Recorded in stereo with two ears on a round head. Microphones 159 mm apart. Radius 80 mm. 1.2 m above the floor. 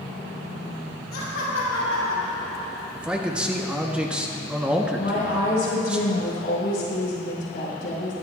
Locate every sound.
1.1 s laughter: 85° left, 4.5 m; by 2.9 s 65° left (ahead or behind), 6 m
3.0 s a man speaking: 5° right (ahead or behind), 0.9 m
5.0 s a woman speaking: 55° left (ahead or behind), 5 m